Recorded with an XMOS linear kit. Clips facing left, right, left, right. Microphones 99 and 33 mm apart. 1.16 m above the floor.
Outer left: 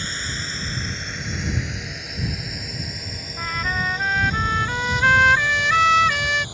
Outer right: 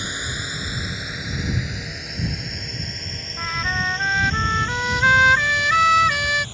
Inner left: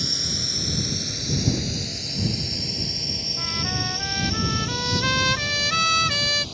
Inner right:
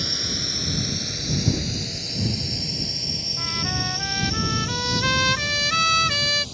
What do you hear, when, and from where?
0.0 s a drone: 15° right (ahead or behind); by 6.5 s 15° left (ahead or behind)
3.4 s a trumpet: 5° right (ahead or behind)